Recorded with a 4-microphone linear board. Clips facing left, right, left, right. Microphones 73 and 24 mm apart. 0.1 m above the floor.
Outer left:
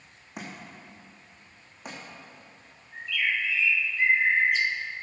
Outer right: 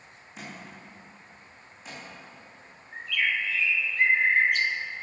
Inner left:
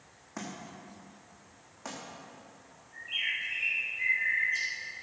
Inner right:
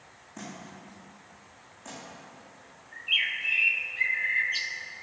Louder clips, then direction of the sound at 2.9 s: Outer right 1 dB, inner right 6 dB; 60° right (ahead or behind).